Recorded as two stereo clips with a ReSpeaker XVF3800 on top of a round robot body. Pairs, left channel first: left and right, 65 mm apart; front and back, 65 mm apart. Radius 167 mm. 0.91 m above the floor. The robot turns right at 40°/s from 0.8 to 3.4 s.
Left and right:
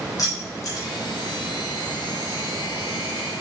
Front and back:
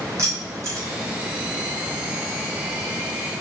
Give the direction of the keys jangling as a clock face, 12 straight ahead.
8 o'clock.